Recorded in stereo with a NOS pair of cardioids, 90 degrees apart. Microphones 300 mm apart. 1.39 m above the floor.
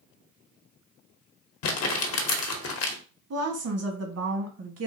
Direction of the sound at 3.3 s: 55° right.